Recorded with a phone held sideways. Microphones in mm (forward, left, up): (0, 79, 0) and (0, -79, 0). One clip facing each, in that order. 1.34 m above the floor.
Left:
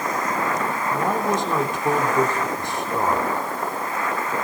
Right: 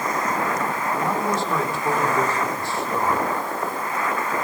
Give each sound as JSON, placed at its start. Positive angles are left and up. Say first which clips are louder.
{"t": 0.9, "sound": "a man speaking", "louder": "left 2 dB", "side_deg": 15, "distance_m": 3.5}